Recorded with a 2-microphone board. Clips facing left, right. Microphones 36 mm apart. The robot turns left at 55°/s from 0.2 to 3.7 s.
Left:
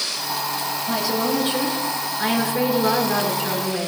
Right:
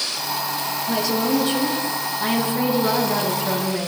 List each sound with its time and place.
0.9 s a woman speaking: 175° left, 8.5 m; by 3.9 s 20° left, 8.5 m